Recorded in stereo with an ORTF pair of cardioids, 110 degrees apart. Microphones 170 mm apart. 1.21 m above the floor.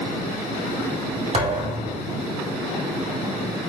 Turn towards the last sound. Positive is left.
turn(degrees=-40)